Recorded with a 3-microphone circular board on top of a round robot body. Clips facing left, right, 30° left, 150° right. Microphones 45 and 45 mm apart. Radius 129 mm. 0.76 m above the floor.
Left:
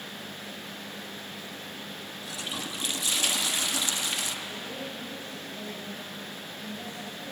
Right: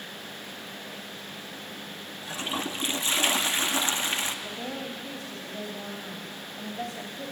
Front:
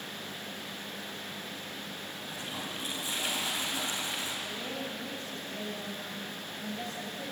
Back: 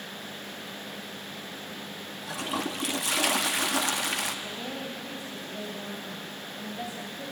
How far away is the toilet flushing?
About 1.3 m.